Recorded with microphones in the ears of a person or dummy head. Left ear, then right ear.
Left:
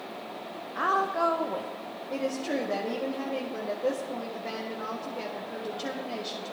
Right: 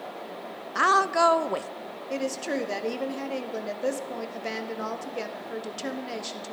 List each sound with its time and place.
0.8 s a woman speaking: 65° right (ahead or behind), 0.5 m
2.1 s a woman speaking: 80° right, 1.5 m